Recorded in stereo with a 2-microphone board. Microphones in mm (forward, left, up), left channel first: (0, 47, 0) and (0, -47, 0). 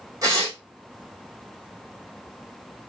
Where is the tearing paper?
35° right (ahead or behind), 4.5 m.